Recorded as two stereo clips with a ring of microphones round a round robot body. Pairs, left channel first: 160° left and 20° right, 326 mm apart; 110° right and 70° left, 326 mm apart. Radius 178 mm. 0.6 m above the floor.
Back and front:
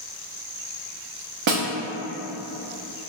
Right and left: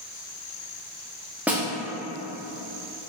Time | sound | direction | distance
1.5 | a snare drum | 20° right | 0.8 m